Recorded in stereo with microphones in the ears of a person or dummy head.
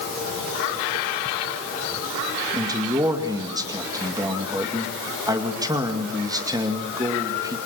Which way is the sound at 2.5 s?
15° right (ahead or behind).